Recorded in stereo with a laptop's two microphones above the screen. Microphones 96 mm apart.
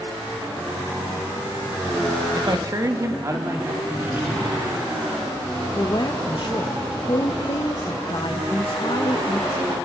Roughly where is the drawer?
Centre.